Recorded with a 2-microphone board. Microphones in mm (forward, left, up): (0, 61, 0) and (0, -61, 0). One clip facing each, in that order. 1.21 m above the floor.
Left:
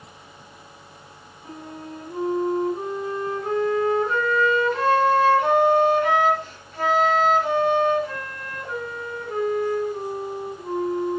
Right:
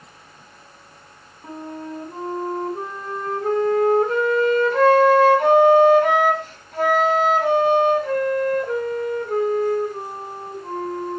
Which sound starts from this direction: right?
A flute, at 1.4 s.